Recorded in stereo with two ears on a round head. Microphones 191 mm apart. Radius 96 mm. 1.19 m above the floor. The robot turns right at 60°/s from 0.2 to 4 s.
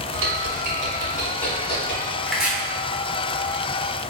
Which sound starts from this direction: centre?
Chopping, at 2.3 s.